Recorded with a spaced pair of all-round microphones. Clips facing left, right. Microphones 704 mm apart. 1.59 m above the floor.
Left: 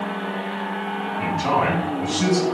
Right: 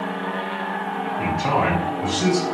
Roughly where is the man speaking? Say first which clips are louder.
Even; left.